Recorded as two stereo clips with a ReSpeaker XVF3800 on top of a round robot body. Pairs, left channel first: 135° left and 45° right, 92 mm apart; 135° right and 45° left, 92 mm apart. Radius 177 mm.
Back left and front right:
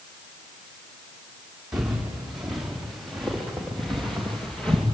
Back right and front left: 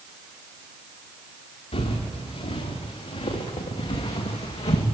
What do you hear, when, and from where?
1.7 s footsteps: 130° right, 4.5 m; by 4.8 s 145° right, 2.5 m